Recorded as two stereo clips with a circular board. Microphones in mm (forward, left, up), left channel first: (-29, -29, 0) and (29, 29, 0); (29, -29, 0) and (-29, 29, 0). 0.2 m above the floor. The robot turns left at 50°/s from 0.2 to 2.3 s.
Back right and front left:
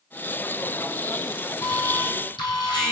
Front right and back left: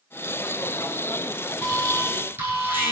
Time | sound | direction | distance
1.6 | an alarm | 125° right | 9 m